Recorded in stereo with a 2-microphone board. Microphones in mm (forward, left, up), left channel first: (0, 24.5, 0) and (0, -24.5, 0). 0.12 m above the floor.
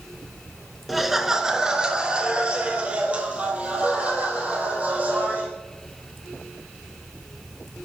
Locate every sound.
0.9 s laughter: centre (ahead or behind), 1.1 m; by 5.5 s 30° right (ahead or behind), 4 m